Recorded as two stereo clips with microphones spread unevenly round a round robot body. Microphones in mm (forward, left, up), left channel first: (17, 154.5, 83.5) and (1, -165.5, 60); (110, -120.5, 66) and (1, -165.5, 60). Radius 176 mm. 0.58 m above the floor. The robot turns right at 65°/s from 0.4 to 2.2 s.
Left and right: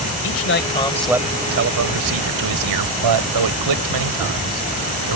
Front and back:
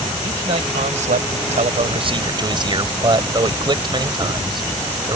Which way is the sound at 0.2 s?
135° left.